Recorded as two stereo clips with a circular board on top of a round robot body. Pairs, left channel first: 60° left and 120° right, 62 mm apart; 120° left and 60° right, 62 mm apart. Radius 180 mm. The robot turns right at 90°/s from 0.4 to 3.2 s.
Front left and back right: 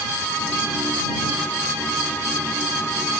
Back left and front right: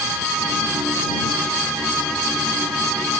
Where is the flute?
I don't hear a flute.